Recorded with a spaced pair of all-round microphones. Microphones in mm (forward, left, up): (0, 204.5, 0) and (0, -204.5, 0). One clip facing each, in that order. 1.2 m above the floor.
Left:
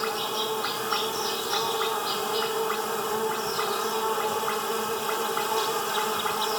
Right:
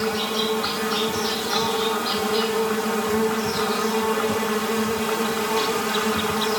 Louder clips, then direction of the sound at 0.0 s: Right 7 dB; 80° right.